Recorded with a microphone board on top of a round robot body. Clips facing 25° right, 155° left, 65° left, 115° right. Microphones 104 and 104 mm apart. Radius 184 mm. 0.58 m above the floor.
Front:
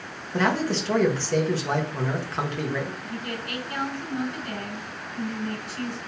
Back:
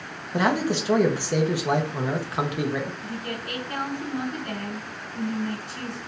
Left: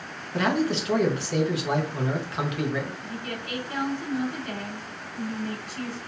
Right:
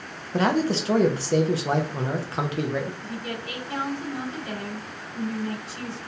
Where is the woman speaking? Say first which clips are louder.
Even, right 2 dB; 170° right, 2.5 m.